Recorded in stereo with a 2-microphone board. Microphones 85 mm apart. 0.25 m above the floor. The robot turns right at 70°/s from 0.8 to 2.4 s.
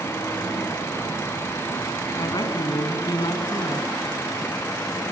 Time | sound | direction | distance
2.2 | a woman speaking | 60° left (ahead or behind) | 1.9 m